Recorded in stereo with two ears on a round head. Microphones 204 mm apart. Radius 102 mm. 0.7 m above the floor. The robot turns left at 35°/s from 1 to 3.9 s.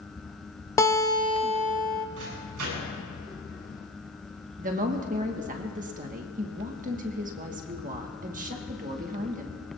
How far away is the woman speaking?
About 1.3 m.